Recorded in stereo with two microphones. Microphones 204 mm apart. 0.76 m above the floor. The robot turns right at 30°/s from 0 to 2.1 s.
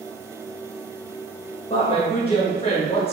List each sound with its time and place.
1.7 s a woman speaking: 25° left (ahead or behind), 1.1 m; by 3.1 s 30° left (ahead or behind), 1.1 m